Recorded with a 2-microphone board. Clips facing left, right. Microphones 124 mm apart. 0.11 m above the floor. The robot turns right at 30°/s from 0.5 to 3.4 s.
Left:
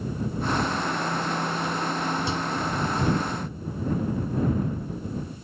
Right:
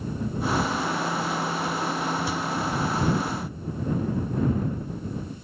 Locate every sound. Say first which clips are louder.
2.3 s a microwave: even; 25° left (ahead or behind); by 2.4 s 20° left (ahead or behind)